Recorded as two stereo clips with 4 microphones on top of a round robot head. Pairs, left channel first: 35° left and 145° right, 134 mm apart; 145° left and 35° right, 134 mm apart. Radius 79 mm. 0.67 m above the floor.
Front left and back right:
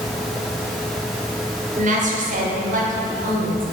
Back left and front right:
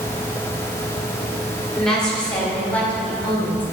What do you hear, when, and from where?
1.8 s a woman speaking: 130° right, 2.0 m; by 3.6 s 135° right, 3 m